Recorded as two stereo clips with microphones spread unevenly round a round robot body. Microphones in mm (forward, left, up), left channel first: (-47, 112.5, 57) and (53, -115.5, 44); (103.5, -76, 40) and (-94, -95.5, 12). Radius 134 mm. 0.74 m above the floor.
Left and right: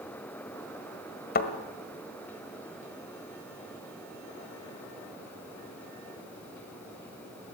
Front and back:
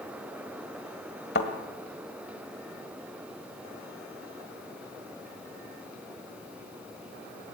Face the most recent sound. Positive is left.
turn(degrees=60)